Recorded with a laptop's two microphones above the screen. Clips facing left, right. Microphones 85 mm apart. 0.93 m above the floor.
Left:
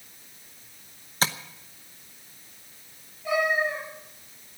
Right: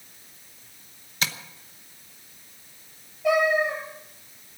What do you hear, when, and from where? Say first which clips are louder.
1.2 s tapping: left 3 dB; 35° left (ahead or behind), 0.9 m
3.2 s a cat meowing: right 4 dB; 85° right, 6.5 m